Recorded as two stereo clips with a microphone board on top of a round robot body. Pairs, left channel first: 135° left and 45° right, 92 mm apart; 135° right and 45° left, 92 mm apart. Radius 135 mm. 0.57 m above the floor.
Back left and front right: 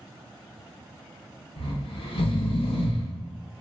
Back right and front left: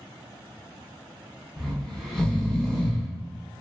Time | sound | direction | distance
1.6 | snoring | 140° left | 0.6 m